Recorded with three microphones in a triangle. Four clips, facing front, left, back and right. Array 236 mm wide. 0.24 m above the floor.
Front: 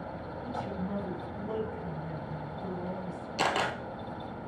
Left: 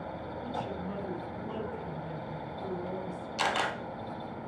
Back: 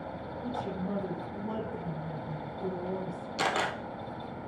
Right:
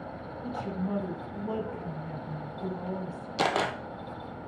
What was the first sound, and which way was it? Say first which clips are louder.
A woman speaking: right 4 dB, back 2 dB; 130° right.